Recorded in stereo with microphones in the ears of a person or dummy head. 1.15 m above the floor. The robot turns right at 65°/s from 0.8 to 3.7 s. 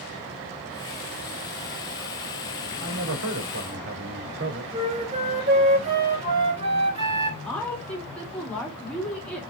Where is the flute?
35° right (ahead or behind), 4 m.